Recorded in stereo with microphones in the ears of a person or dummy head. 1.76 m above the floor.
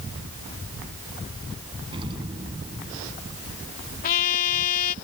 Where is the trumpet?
50° left (ahead or behind).